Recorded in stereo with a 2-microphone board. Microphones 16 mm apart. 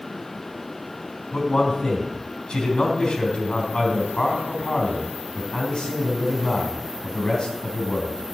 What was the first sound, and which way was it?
A man speaking, 75° left (ahead or behind).